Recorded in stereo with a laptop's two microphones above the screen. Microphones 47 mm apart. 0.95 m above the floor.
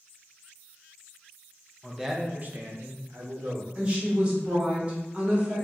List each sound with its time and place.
1.8 s a man speaking: 10° left (ahead or behind), 0.5 m; by 3.6 s 70° right (ahead or behind), 1.2 m
3.8 s a woman speaking: 25° right (ahead or behind), 1.6 m